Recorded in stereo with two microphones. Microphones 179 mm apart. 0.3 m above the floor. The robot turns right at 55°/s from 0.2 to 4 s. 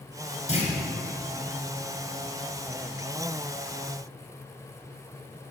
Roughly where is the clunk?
Left.